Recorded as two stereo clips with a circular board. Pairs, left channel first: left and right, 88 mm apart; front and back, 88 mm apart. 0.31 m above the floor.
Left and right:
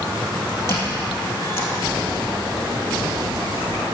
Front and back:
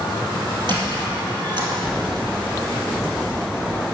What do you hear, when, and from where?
0.7 s a squeak: 150° left, 2 m